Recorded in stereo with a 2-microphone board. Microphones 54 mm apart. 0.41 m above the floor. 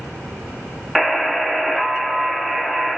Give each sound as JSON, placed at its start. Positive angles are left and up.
{"t": 0.9, "sound": "a buzzer", "side_deg": 0, "distance_m": 0.7}